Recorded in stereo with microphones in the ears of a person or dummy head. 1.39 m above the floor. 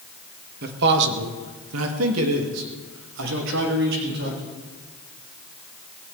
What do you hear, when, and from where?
0.6 s a man speaking: 55° right (ahead or behind), 1.6 m; by 4.4 s 60° right (ahead or behind), 2.5 m